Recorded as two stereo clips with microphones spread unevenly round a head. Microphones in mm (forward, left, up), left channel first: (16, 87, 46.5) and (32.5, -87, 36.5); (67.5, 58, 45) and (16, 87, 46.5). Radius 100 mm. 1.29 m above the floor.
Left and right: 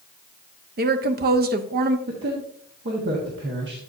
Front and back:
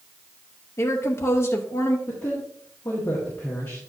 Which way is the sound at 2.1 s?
80° right.